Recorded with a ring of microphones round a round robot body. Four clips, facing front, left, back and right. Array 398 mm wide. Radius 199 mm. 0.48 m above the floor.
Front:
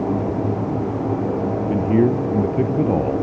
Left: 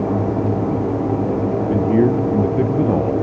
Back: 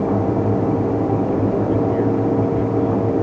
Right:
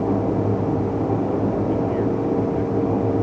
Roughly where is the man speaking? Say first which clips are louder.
Left 5 dB, even; ahead left.